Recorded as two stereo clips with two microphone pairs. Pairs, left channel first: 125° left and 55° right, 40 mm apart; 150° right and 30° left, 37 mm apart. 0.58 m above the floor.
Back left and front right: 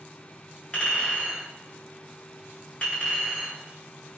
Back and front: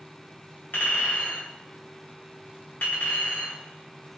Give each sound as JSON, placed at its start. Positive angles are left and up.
{"t": 0.7, "sound": "a clink", "azimuth_deg": -170, "distance_m": 1.2}